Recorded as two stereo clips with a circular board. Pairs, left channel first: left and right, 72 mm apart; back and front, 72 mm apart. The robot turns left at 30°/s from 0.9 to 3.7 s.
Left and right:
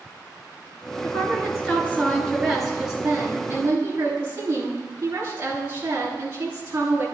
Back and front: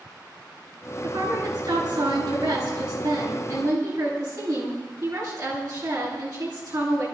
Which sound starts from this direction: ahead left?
A woman speaking, at 1.0 s.